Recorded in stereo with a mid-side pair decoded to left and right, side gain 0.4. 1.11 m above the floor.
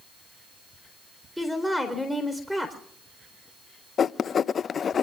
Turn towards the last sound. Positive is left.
turn(degrees=55)